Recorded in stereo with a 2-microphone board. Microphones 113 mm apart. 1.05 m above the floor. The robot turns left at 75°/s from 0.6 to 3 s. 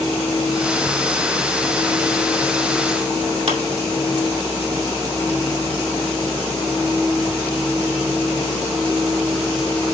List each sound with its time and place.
3.5 s a clap: 55° right (ahead or behind), 2.5 m